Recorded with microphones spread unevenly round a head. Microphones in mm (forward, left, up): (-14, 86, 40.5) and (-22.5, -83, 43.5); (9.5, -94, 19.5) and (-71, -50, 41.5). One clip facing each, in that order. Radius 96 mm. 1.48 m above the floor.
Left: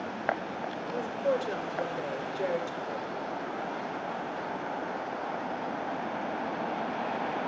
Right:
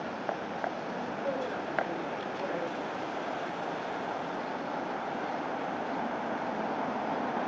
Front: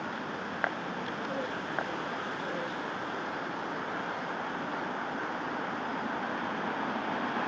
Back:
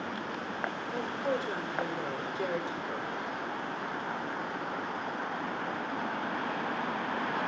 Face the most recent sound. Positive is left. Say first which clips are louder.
# left 9 dB, back 3 dB
turn(degrees=140)